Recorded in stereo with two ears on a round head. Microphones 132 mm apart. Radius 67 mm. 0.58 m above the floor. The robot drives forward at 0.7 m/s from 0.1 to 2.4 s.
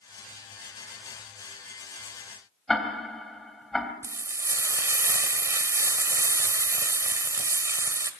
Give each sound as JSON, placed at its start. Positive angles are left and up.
{"t": 2.7, "sound": "ticking", "side_deg": 0, "distance_m": 3.0}
{"t": 4.0, "sound": "frying", "side_deg": -20, "distance_m": 1.9}